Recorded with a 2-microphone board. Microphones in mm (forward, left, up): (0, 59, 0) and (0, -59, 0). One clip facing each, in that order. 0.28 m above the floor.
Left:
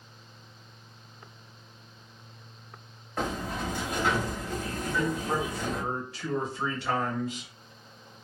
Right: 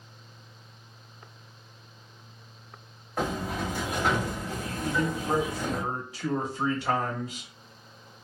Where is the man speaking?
15° right (ahead or behind), 0.9 m.